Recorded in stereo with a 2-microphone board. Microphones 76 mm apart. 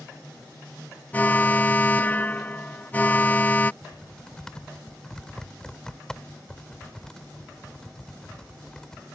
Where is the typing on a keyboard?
10° left (ahead or behind).